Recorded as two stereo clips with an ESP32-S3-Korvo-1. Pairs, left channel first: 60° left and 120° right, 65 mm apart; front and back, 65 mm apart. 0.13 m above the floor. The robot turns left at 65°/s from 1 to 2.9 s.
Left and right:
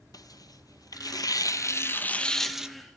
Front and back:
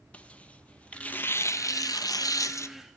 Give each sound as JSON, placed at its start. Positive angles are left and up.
{"t": 0.1, "sound": "tearing paper", "azimuth_deg": 70, "distance_m": 0.8}